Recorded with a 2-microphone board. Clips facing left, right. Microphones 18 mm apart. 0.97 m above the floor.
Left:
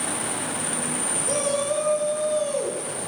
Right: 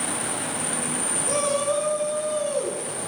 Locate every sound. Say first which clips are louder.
1.2 s a shout: right 1 dB; 5° left (ahead or behind), 5.5 m; by 3.1 s 25° left (ahead or behind), 7 m